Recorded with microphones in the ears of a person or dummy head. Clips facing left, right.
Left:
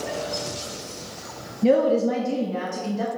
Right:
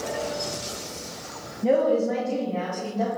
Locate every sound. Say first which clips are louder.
1.6 s a woman speaking: left 2 dB; 35° left (ahead or behind), 0.7 m; by 3.1 s 70° left (ahead or behind), 1.8 m